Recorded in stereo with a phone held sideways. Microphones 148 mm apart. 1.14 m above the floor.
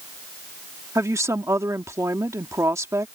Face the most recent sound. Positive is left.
turn(degrees=-20)  # may be behind; listen again after turning